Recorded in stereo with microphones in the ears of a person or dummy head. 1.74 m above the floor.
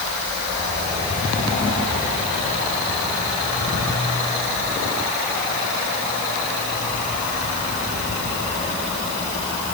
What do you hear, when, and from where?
Only background noise.